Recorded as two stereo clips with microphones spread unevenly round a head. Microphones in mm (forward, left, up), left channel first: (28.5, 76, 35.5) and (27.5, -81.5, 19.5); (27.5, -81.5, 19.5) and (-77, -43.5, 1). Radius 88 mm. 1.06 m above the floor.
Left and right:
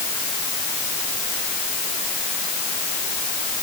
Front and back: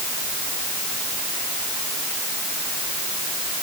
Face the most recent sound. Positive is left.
No sound to turn to.